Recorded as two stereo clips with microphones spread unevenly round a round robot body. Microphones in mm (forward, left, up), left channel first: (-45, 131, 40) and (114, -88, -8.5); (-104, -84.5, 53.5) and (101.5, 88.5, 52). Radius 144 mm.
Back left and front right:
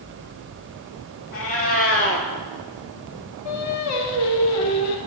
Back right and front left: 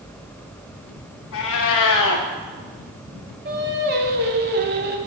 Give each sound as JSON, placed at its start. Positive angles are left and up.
{"t": 1.3, "sound": "a cat meowing", "azimuth_deg": 180, "distance_m": 0.6}
{"t": 3.5, "sound": "singing", "azimuth_deg": 95, "distance_m": 0.7}